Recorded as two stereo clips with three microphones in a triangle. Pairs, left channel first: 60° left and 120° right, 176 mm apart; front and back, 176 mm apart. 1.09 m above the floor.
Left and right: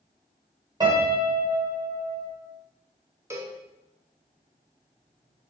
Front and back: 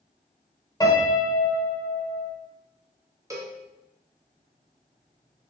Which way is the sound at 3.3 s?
155° right.